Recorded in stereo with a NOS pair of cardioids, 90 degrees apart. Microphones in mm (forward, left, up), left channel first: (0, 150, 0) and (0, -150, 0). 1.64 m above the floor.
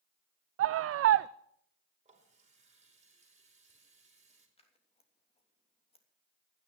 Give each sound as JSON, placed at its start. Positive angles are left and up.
{"t": 0.6, "sound": "a scream", "azimuth_deg": -50, "distance_m": 0.5}
{"t": 2.0, "sound": "a running tap", "azimuth_deg": -20, "distance_m": 4.5}
{"t": 4.6, "sound": "scissors", "azimuth_deg": 20, "distance_m": 3.0}